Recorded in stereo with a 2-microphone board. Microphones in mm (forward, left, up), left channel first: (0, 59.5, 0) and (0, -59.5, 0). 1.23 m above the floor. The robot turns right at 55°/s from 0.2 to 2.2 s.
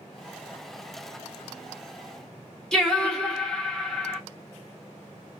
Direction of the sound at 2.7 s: 5° left (ahead or behind).